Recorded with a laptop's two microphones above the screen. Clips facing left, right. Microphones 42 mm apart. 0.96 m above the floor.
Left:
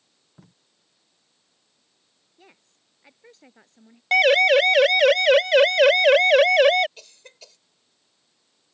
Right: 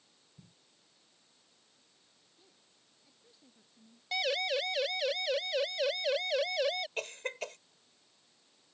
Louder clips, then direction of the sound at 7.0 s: Right 11 dB; 50° right (ahead or behind).